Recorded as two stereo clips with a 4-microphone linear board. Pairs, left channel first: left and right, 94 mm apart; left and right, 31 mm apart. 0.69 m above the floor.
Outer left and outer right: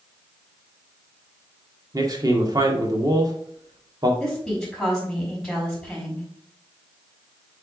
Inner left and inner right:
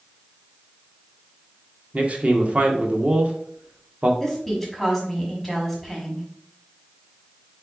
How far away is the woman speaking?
About 4 m.